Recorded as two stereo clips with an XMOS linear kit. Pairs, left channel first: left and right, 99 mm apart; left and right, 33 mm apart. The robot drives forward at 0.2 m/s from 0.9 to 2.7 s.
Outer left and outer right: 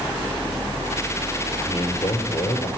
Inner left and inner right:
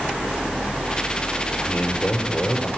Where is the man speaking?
45° left (ahead or behind), 4 m.